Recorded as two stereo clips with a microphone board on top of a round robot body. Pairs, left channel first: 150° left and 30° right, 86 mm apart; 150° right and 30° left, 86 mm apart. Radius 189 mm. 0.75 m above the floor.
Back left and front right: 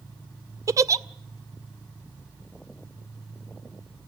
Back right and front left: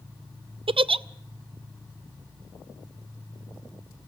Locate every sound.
0.7 s a giggle: 25° left, 0.6 m